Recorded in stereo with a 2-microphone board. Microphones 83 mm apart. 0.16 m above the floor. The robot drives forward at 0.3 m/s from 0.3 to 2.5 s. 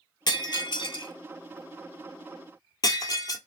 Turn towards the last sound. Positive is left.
turn(degrees=55)  # may be behind; listen again after turning